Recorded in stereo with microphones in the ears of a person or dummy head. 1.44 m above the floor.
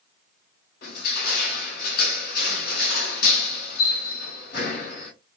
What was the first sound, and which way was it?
Crushing, 55° left (ahead or behind).